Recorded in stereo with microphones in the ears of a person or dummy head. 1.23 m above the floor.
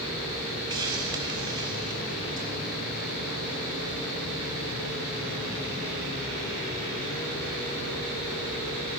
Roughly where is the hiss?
Centre.